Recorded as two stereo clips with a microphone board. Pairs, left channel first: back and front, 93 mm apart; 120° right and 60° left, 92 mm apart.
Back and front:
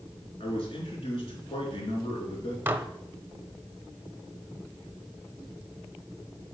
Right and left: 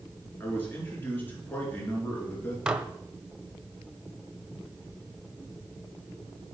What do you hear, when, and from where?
0.4 s a man speaking: 170° left, 4 m
2.7 s dishes clattering: straight ahead, 0.6 m